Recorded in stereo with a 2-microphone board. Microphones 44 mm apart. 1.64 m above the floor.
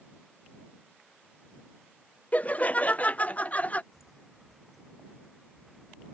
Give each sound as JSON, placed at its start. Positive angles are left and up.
{"t": 2.3, "sound": "laughter", "side_deg": 35}
{"t": 3.9, "sound": "footsteps", "side_deg": 0}